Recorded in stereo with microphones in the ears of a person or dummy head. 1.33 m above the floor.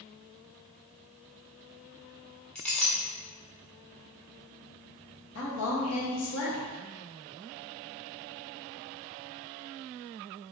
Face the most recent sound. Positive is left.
turn(degrees=80)